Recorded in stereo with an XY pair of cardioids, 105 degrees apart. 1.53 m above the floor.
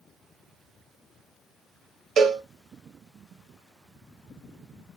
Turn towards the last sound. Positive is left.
turn(degrees=-55)